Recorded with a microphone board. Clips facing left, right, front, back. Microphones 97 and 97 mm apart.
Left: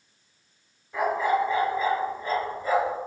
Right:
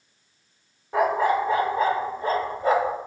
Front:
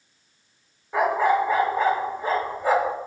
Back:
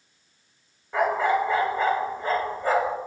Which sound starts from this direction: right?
A dog barking, at 0.9 s.